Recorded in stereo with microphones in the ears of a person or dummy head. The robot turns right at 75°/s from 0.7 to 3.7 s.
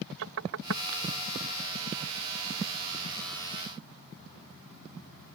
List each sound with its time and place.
0.2 s knocking: 65° right (ahead or behind); by 0.8 s 70° right (ahead or behind)